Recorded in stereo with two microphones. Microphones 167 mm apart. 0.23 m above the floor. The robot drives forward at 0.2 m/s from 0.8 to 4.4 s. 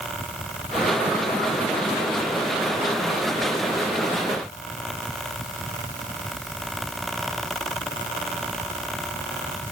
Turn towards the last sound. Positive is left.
No sound to turn to.